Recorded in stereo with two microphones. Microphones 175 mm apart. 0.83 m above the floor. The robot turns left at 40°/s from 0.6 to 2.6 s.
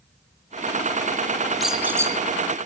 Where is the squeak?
Centre (ahead or behind), 4 m; by 2.1 s 20° right (ahead or behind), 4 m.